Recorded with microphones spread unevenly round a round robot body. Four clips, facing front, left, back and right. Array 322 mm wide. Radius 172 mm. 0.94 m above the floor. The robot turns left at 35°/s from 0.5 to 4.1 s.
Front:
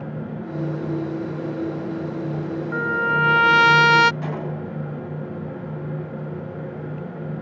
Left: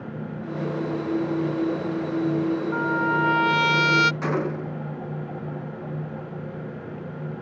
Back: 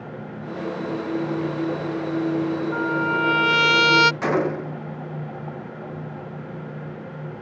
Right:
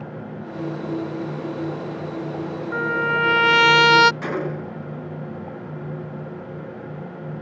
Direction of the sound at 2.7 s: 55° right.